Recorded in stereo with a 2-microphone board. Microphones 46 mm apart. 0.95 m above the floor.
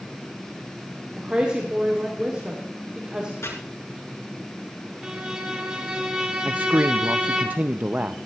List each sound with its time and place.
1.2 s a woman speaking: 25° right (ahead or behind), 2 m
3.4 s chopping: 85° left, 4.5 m
5.0 s a violin: 20° right (ahead or behind), 2 m
6.5 s a man speaking: 35° right (ahead or behind), 0.5 m